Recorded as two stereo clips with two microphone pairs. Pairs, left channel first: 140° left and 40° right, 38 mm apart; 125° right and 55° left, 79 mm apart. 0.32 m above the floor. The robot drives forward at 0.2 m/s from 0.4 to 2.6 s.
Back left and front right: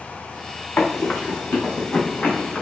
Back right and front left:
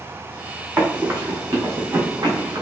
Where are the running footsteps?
115° left, 1.6 m; by 2.6 s 95° left, 2.0 m.